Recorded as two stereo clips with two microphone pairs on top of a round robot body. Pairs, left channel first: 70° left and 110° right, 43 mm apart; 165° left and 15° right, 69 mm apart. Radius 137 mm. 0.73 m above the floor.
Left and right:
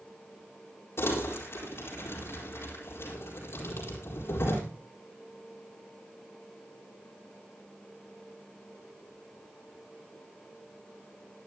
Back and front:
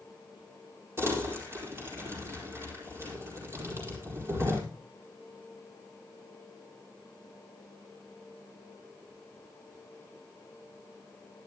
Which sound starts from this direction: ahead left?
Crumpling, at 1.0 s.